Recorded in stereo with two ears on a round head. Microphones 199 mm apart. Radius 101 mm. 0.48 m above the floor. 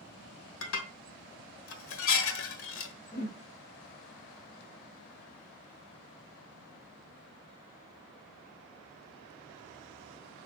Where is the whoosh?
45° left (ahead or behind), 1.1 m.